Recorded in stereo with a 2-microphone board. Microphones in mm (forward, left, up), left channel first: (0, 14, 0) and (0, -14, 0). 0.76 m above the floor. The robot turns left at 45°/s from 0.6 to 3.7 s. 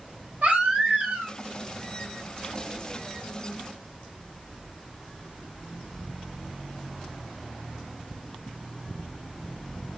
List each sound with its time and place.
0.4 s a baby crying: 65° right, 1.2 m; by 1.4 s 100° right, 1.2 m